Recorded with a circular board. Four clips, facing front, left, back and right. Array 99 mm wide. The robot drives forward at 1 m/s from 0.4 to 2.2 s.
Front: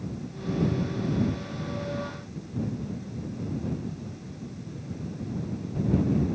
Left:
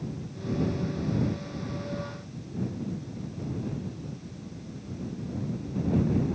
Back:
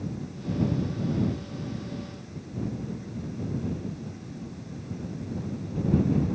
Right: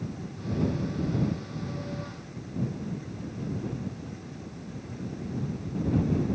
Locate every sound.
Only background noise.